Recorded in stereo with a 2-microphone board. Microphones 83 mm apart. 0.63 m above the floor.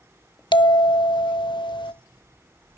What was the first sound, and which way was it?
A bell, 75° left (ahead or behind).